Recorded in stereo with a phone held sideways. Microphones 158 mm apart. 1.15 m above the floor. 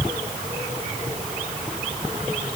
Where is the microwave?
No microwave in this recording.